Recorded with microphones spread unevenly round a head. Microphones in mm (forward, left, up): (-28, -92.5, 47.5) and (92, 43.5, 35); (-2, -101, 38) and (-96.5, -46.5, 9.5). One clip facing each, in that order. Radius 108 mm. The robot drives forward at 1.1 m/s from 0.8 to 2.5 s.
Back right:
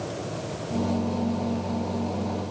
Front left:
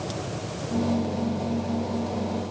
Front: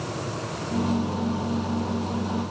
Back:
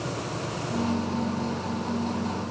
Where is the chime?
I don't hear a chime.